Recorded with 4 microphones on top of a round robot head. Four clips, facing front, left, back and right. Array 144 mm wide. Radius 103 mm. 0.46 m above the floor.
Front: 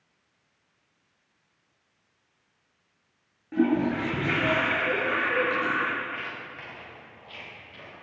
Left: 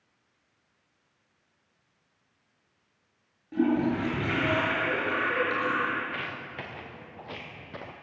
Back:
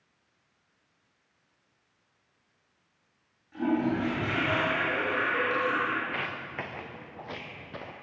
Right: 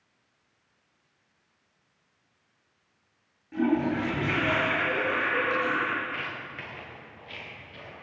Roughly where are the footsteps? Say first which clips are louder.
Even, back 1 dB; behind.